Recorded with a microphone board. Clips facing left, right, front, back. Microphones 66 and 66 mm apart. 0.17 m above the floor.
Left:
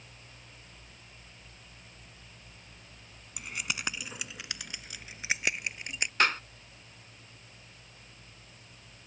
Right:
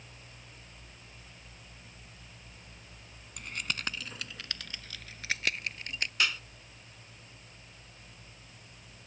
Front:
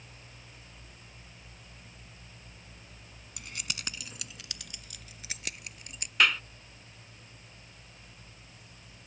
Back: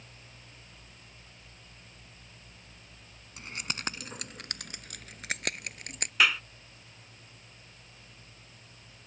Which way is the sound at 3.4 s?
165° left.